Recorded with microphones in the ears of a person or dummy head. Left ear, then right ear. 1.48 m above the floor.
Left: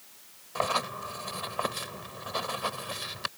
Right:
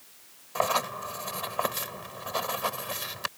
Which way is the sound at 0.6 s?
15° right (ahead or behind).